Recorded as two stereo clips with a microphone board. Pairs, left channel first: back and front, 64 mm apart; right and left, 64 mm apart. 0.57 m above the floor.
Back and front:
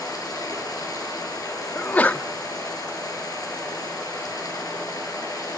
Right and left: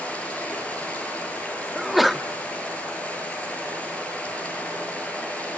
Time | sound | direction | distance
0.0 | running water | 160° right | 6.5 m
1.8 | a sneeze | 175° left | 0.7 m